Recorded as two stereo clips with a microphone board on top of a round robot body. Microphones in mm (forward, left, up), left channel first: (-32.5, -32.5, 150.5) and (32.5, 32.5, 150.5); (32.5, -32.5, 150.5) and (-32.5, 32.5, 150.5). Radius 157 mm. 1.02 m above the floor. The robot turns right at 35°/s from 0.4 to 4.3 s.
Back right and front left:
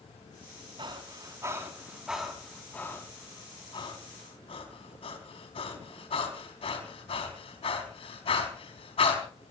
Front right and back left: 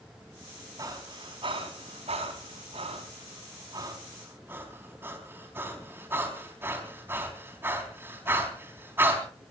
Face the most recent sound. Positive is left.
turn(degrees=-155)